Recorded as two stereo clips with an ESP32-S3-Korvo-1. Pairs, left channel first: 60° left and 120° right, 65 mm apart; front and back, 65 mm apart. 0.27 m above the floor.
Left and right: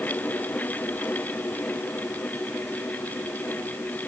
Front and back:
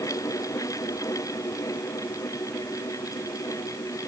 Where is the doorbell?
I don't hear a doorbell.